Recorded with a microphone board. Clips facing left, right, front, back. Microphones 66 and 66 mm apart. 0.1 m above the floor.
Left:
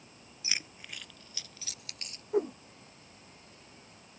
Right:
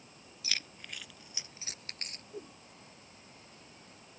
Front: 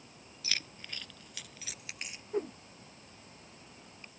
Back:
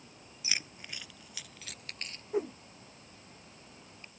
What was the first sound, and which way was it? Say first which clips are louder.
Keys jangling: left 1 dB, back 1 dB; 130° left.